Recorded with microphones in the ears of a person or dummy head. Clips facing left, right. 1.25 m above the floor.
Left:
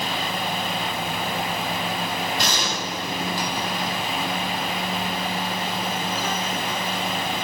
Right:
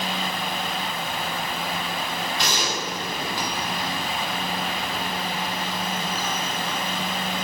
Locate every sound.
2.4 s a gunshot: 40° left (ahead or behind), 4.5 m